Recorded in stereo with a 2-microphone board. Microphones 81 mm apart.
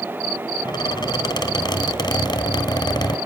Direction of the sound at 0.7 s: 55° left (ahead or behind).